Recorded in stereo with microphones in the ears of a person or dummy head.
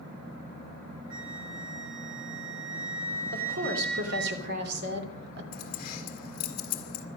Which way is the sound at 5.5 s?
55° left (ahead or behind).